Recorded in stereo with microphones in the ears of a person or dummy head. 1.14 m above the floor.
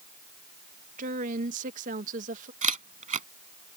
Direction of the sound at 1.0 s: 45° right (ahead or behind).